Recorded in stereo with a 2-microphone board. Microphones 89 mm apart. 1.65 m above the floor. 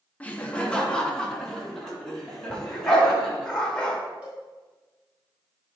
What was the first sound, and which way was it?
Laughter, 15° left (ahead or behind).